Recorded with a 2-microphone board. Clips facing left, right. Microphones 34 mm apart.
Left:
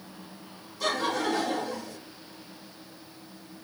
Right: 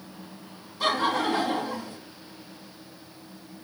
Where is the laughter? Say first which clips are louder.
Right 3 dB; 35° right (ahead or behind), 2.5 m.